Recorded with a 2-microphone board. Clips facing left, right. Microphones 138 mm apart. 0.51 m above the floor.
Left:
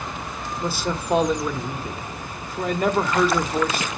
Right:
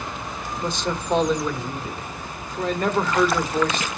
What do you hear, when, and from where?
0.6 s a man speaking: 5° left (ahead or behind), 1.2 m